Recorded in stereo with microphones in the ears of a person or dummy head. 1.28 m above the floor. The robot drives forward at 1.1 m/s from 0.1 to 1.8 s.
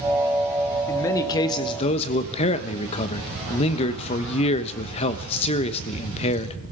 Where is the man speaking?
15° left (ahead or behind), 1.9 m; by 6.6 s 30° left (ahead or behind), 1.0 m.